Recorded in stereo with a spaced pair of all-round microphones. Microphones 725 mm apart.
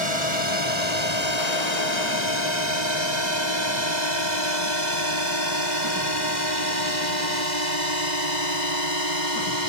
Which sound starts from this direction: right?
A drone, at 0.0 s.